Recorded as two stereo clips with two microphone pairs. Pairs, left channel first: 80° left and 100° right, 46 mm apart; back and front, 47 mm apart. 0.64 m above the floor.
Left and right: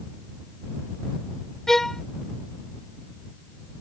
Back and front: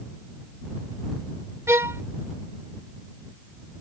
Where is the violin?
Straight ahead.